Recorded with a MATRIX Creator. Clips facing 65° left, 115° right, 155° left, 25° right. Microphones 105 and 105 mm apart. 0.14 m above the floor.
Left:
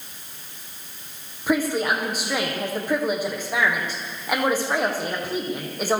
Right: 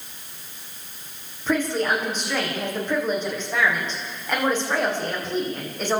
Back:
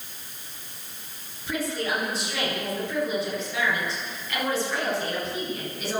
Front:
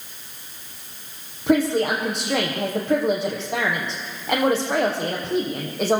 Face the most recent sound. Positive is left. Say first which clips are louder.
# left 1 dB, front 10 dB
turn(degrees=-15)